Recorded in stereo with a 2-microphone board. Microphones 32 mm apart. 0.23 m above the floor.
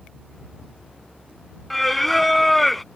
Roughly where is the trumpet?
I don't hear a trumpet.